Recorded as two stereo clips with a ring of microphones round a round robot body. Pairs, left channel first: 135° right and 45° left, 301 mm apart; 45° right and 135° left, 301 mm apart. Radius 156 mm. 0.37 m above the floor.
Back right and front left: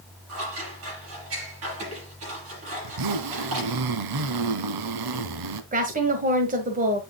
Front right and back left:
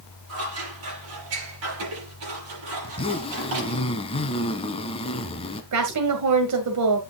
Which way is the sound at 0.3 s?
90° left.